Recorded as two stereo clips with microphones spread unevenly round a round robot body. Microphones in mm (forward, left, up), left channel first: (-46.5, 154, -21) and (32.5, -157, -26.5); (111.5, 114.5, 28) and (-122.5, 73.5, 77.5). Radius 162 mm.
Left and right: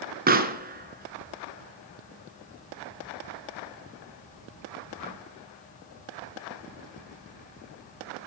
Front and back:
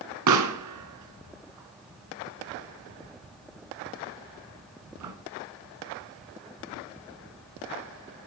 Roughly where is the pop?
Behind right.